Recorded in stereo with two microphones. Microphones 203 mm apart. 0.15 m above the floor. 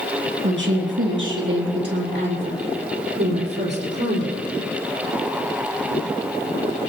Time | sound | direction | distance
0.4 | a woman speaking | 70° right (ahead or behind) | 3.5 m